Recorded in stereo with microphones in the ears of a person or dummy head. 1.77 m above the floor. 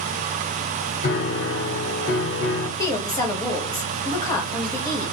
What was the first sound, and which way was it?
A piano, 55° left (ahead or behind).